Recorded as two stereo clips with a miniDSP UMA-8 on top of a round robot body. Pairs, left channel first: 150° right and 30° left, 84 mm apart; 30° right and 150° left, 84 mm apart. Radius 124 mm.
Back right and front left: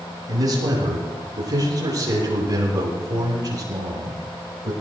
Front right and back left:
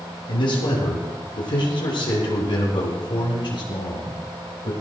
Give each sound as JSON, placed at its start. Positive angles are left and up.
{"t": 0.3, "sound": "a man speaking", "azimuth_deg": -15, "distance_m": 9.5}